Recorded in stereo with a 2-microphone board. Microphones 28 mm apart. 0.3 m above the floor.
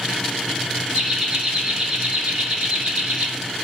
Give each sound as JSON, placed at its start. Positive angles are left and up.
{"t": 0.9, "sound": "laughter", "side_deg": -15, "distance_m": 1.4}